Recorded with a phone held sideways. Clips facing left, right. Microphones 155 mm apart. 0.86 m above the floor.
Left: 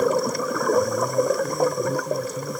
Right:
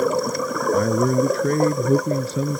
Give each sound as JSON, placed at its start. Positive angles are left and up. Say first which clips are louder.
{"t": 0.7, "sound": "a man speaking", "louder": "right 4 dB", "side_deg": -85}